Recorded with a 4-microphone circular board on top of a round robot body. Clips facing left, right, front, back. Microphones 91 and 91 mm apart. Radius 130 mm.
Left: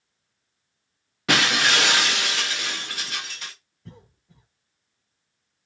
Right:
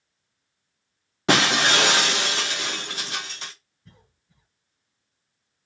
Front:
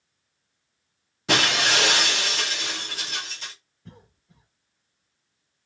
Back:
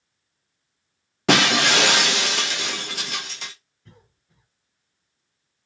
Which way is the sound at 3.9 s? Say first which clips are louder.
Left 9 dB, front 5 dB; 75° left.